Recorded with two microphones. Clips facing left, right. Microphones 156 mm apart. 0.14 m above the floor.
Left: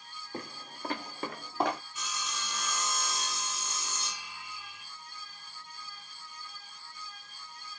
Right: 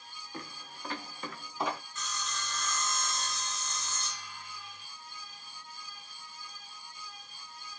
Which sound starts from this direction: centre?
Sawing, at 1.9 s.